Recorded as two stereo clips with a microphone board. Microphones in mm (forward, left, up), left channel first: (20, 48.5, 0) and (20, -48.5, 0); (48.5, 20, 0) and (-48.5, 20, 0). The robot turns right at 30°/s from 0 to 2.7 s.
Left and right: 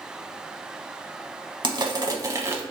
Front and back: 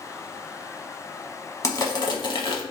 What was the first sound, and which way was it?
Crushing, 50° right.